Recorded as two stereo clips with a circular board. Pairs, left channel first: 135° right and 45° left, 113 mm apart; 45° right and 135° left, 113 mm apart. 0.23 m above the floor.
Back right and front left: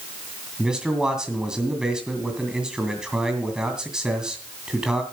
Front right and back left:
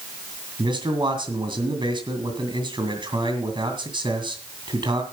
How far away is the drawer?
No drawer in this recording.